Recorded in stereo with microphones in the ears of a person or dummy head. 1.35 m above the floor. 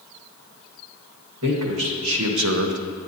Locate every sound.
1.4 s a man speaking: 85° right, 1.6 m; by 2.8 s 70° right (ahead or behind), 0.5 m